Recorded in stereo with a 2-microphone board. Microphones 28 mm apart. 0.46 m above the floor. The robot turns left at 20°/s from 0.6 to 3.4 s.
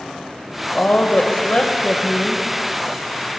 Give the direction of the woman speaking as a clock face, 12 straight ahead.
9 o'clock.